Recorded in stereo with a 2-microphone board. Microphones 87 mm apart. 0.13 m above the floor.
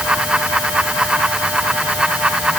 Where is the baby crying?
No baby crying in this recording.